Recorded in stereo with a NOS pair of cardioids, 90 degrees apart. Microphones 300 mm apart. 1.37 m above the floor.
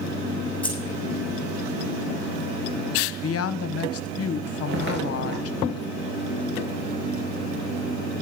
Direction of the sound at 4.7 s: 40° right.